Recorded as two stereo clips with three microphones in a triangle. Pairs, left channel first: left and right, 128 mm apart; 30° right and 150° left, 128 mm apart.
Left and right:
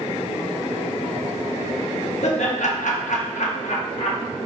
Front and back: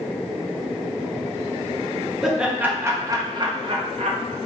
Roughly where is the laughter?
Ahead left.